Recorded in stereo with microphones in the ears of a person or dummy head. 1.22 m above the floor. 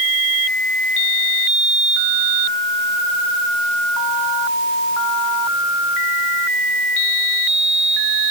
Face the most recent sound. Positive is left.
No sound to turn to.